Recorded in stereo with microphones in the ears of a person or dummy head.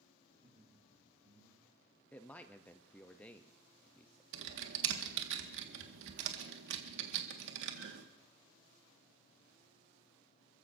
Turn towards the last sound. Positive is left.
turn(degrees=-75)  # may be behind; listen again after turning